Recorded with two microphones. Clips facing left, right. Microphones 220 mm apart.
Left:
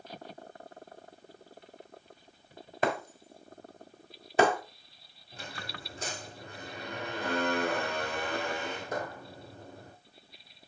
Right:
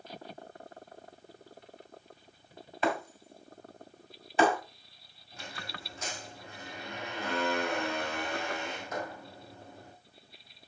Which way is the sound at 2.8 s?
45° left (ahead or behind).